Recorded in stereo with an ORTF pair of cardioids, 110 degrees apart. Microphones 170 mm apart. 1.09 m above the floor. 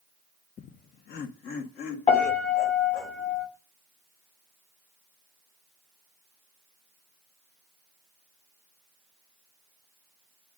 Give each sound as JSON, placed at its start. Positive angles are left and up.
{"t": 0.6, "sound": "laughter", "azimuth_deg": 40, "distance_m": 0.5}
{"t": 2.1, "sound": "a piano", "azimuth_deg": 45, "distance_m": 3.0}